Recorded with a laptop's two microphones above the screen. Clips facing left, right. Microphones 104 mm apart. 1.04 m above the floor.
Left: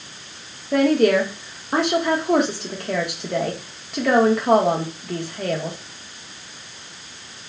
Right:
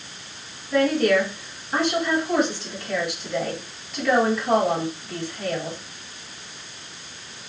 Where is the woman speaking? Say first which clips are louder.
Left 3 dB; 70° left (ahead or behind), 1.4 m.